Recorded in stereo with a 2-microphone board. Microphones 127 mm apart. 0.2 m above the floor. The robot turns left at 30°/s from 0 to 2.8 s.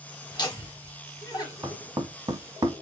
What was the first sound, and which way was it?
Laughter, 35° left (ahead or behind).